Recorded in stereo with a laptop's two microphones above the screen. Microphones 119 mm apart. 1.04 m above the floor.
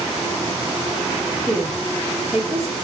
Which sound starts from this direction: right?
A woman speaking, at 1.5 s.